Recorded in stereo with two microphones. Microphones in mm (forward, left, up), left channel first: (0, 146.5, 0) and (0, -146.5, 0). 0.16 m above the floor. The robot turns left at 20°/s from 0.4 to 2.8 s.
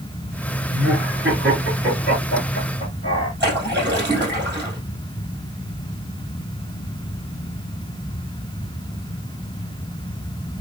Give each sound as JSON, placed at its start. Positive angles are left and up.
{"t": 0.7, "sound": "laughter", "side_deg": -45, "distance_m": 2.0}
{"t": 3.4, "sound": "a splash", "side_deg": -40, "distance_m": 3.5}